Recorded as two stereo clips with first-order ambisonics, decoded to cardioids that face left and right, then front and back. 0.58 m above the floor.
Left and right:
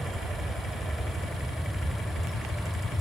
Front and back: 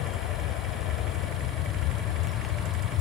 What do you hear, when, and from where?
0.0 s an aircraft: 10° right; by 3.0 s 5° left